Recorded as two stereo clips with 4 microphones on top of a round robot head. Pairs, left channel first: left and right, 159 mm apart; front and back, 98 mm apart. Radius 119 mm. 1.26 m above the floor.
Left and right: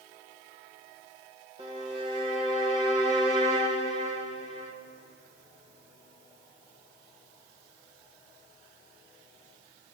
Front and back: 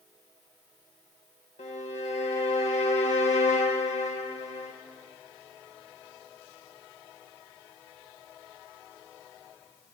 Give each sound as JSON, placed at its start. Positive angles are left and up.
{"t": 1.6, "sound": "a violin", "azimuth_deg": -25, "distance_m": 0.6}